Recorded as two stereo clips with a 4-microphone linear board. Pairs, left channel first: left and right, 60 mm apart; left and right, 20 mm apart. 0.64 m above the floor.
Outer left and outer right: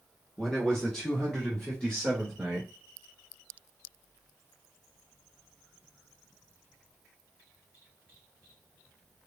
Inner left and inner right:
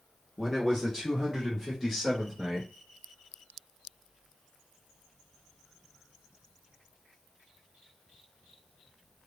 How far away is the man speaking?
About 1.0 m.